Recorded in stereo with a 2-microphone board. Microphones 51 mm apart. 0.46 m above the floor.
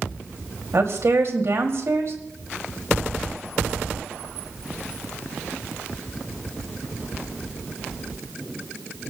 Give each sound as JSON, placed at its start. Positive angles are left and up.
{"t": 0.7, "sound": "a woman speaking", "side_deg": -65, "distance_m": 3.0}